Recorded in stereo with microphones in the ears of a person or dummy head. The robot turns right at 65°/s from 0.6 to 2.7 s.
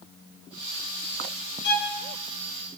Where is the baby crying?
I don't hear a baby crying.